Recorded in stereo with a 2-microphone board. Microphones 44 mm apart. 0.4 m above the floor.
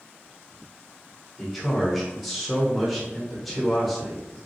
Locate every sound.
1.4 s a man speaking: centre (ahead or behind), 1.0 m